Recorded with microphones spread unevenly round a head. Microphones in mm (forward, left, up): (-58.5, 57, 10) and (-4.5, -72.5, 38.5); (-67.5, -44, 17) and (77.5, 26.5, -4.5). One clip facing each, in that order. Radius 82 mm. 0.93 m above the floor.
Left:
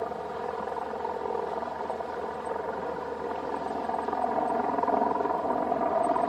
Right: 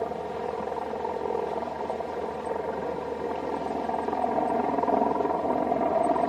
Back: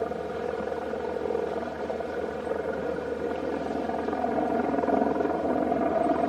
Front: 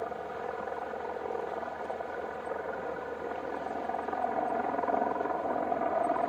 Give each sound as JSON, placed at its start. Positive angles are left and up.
{"t": 0.0, "sound": "a helicopter", "azimuth_deg": -140}